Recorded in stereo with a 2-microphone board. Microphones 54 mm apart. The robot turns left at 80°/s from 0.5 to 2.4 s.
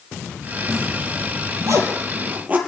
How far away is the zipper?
About 4.5 m.